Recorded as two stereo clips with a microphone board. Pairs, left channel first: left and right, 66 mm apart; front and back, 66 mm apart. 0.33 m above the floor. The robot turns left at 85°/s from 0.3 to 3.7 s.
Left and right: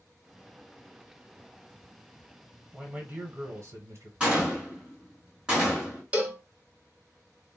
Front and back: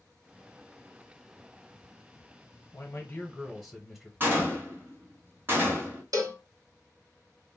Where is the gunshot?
155° right, 1.6 m.